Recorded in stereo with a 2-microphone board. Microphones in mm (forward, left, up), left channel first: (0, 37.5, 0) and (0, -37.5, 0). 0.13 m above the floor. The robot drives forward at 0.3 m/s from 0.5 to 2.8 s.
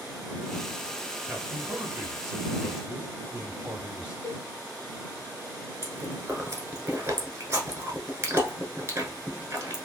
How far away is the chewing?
About 1.0 m.